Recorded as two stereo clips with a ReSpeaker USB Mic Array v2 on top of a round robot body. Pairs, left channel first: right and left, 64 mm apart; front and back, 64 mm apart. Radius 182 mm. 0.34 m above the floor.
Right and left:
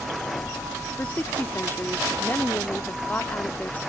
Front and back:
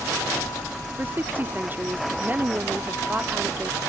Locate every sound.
1.0 s a woman speaking: 135° right